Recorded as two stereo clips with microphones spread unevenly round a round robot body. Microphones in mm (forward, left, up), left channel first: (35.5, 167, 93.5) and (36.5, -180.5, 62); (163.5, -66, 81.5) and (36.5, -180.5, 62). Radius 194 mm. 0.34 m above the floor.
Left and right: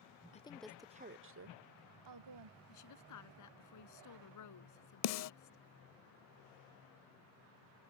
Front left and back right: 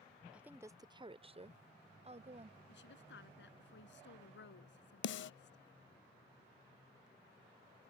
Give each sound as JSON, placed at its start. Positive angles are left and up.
{"t": 0.3, "sound": "a woman speaking", "azimuth_deg": 155}
{"t": 2.7, "sound": "a woman speaking", "azimuth_deg": 50}
{"t": 5.0, "sound": "a snare drum", "azimuth_deg": 40}